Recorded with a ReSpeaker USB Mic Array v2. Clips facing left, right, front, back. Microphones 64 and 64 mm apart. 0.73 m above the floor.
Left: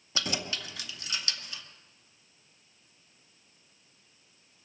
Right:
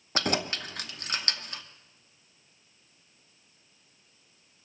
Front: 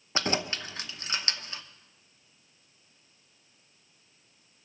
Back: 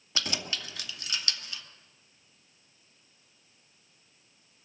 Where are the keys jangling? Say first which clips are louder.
Right 5 dB, front 5 dB; 55° right, 0.8 m.